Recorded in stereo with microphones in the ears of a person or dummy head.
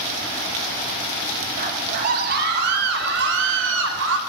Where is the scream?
50° right (ahead or behind), 6 m; by 4.2 s 85° right, 5.5 m.